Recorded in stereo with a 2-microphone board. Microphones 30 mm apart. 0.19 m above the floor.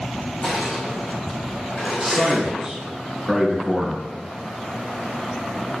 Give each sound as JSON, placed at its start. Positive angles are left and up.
{"t": 0.4, "sound": "crushing", "side_deg": 30, "distance_m": 3.0}
{"t": 2.0, "sound": "a man speaking", "side_deg": -5, "distance_m": 2.5}